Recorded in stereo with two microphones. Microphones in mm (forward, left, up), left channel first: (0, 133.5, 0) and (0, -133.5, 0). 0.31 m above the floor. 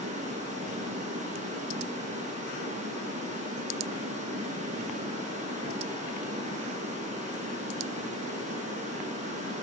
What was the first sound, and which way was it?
Running water, 25° right (ahead or behind).